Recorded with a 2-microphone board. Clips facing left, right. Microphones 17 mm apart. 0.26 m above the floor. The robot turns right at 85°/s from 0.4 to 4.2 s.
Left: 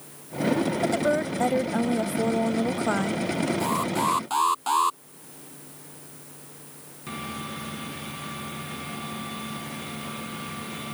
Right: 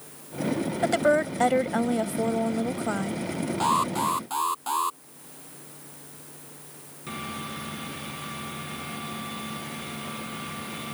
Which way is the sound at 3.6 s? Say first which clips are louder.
Right 6 dB; 35° right.